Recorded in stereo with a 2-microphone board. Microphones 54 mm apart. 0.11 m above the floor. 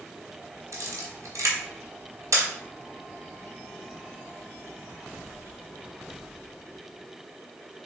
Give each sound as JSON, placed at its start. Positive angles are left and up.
{"t": 0.7, "sound": "a camera shutter", "side_deg": -65, "distance_m": 1.0}